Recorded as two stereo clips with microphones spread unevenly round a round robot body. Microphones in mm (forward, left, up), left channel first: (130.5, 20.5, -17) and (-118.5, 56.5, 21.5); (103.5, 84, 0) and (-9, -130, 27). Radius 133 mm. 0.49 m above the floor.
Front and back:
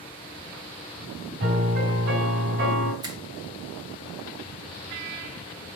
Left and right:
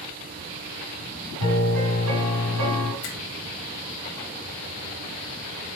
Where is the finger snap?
95° left, 2.0 m.